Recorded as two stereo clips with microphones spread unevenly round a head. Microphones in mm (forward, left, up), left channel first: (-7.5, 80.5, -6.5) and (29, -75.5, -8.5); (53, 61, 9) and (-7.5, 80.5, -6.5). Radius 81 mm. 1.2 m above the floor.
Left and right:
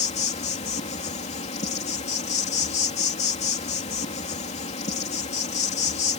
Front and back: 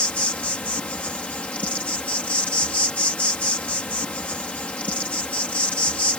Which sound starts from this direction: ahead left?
An insect, at 0.0 s.